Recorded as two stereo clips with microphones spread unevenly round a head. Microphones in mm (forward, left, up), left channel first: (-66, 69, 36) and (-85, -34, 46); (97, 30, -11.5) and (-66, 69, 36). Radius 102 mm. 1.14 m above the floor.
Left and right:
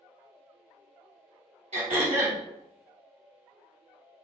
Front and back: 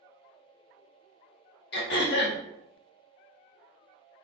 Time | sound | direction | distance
1.7 | throat clearing | 60° right | 0.6 m